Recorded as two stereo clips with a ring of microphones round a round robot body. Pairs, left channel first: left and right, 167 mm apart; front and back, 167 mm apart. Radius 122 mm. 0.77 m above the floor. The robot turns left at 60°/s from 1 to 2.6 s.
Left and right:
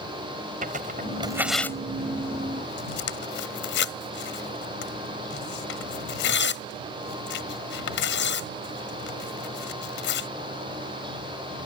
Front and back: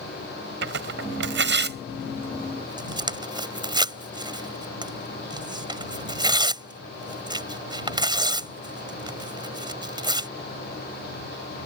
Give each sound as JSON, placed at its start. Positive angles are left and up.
{"t": 0.6, "sound": "tearing paper", "azimuth_deg": -150}